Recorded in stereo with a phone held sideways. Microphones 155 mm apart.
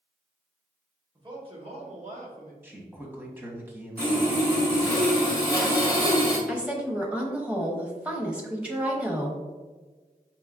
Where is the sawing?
80° right, 1.8 m.